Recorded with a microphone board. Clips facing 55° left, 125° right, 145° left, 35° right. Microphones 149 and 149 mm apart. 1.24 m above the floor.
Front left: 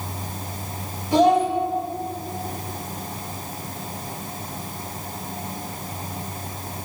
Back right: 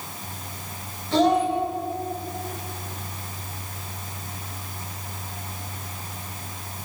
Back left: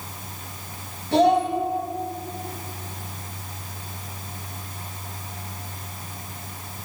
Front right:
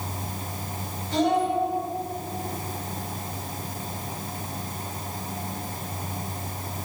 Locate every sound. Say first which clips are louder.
1.1 s a child speaking: front left 3 dB, back left 5 dB; 135° left, 5 m